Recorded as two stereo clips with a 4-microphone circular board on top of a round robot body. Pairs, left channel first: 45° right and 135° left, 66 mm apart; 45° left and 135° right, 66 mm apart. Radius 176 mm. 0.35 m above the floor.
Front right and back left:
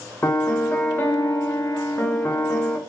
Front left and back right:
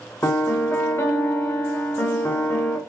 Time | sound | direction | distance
0.2 | a piano | 10° left | 0.8 m